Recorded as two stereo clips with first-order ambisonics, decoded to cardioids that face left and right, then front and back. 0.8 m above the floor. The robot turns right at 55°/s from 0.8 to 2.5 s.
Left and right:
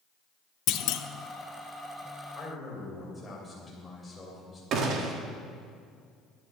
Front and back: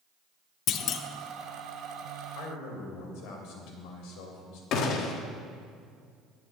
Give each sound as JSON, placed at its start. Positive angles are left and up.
{"t": 0.7, "sound": "a clunk", "azimuth_deg": 50, "distance_m": 0.6}
{"t": 2.4, "sound": "a man speaking", "azimuth_deg": 0, "distance_m": 3.0}
{"t": 4.7, "sound": "a gunshot", "azimuth_deg": -45, "distance_m": 1.1}